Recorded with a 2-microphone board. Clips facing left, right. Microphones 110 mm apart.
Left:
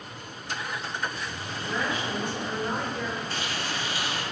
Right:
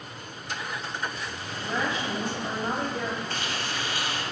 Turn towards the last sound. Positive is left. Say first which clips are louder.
# even
turn(degrees=-50)  # may be behind; listen again after turning